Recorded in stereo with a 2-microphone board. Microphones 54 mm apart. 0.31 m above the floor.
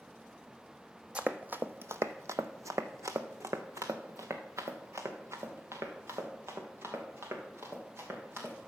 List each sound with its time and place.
1.1 s running footsteps: 20° right (ahead or behind), 0.8 m; by 8.5 s 45° right (ahead or behind), 4 m